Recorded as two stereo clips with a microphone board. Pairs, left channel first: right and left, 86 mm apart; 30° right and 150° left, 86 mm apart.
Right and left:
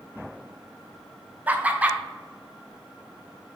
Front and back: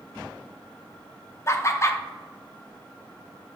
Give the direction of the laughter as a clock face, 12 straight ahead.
11 o'clock.